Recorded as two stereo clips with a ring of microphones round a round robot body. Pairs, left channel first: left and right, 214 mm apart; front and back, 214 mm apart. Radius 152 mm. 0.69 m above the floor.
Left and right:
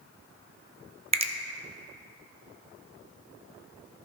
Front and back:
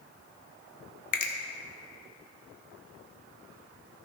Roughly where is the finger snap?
Ahead right.